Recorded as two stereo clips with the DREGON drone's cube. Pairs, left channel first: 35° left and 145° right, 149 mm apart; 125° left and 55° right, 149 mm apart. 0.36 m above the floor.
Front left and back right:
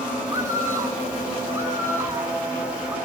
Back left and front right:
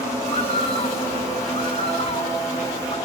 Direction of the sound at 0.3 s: 150° left.